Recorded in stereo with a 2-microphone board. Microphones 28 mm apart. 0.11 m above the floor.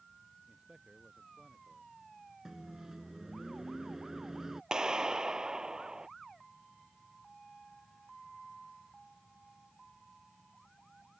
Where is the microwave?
20° right (ahead or behind).